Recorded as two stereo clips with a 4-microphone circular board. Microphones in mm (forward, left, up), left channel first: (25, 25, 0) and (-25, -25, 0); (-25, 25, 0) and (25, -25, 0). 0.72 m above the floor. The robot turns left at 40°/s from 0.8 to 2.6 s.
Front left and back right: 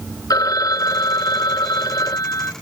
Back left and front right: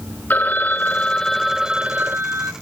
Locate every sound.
0.3 s a phone ringing: 70° left; by 2.5 s straight ahead